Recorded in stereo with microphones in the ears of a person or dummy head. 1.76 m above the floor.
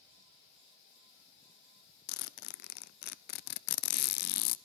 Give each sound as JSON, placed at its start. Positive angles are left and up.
{"t": 2.1, "sound": "a zipper", "side_deg": 60, "distance_m": 0.6}